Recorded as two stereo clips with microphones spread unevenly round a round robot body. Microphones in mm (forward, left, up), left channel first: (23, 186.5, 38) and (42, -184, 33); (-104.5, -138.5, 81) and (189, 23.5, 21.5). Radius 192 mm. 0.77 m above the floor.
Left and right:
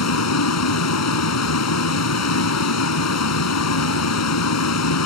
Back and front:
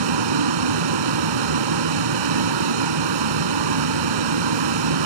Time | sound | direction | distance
0.0 | a vehicle | 45° left | ?